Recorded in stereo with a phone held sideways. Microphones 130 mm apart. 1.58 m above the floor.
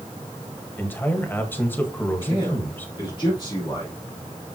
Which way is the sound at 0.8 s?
15° left (ahead or behind).